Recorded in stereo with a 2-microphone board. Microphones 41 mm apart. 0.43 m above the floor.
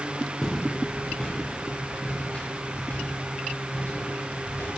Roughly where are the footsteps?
Centre.